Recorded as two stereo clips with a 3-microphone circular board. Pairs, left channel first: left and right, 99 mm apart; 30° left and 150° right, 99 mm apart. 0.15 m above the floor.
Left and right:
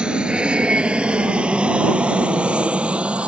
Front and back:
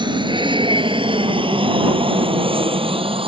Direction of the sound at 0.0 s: 170° right.